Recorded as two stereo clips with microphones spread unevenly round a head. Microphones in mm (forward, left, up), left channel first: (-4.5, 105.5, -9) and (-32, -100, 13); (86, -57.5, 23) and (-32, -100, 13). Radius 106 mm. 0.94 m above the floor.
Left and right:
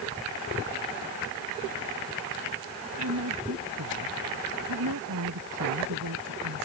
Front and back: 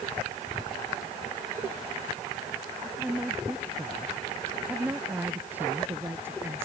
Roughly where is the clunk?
I don't hear a clunk.